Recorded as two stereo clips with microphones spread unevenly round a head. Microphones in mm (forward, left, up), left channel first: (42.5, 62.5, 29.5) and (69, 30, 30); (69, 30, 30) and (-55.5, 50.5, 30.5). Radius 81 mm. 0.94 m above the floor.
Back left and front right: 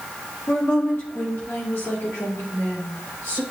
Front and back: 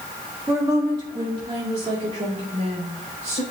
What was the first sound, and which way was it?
A woman speaking, 105° left.